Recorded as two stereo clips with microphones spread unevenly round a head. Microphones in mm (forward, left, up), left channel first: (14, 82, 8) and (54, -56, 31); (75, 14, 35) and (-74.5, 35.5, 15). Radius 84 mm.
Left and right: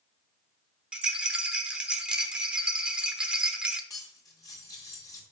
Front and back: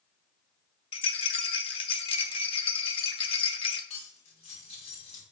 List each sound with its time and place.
0.9 s a rattle: 5° right, 0.9 m
3.9 s cutlery clinking: 40° left, 2.5 m